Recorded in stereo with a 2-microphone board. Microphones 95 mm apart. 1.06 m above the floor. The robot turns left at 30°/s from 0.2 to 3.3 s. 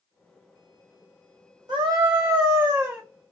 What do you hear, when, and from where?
1.7 s a scream: 125° right, 1.6 m; by 3.0 s 165° right, 1.6 m